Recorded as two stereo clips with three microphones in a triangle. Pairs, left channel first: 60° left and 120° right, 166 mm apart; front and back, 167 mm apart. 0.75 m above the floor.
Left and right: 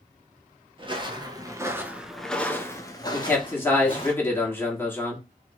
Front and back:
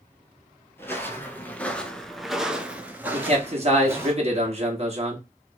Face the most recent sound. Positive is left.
turn(degrees=135)